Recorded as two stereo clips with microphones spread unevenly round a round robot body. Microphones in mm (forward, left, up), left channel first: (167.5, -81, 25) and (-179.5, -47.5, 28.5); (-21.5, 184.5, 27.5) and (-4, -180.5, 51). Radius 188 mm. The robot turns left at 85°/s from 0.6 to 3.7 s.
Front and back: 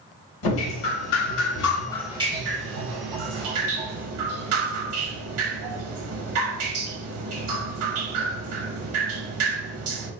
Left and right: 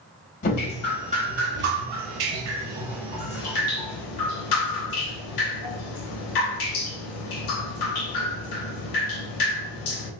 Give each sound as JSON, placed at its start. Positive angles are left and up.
{"t": 0.4, "sound": "dripping", "azimuth_deg": 25, "distance_m": 0.7}